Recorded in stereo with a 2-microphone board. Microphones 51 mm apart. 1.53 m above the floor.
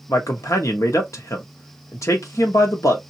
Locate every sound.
0.1 s a man speaking: 85° left, 1.0 m